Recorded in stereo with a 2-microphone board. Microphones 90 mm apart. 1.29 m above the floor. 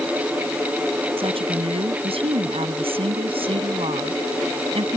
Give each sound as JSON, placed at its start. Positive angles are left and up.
{"t": 1.2, "sound": "a woman speaking", "side_deg": -90}